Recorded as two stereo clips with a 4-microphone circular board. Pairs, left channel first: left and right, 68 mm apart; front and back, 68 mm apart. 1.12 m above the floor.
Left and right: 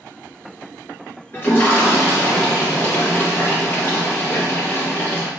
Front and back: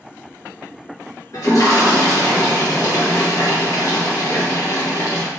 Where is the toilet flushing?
35° left, 1.1 m.